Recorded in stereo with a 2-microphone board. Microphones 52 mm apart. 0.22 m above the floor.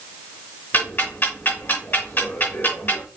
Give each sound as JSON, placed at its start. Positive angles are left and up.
{"t": 0.7, "sound": "ticking", "side_deg": 45, "distance_m": 2.5}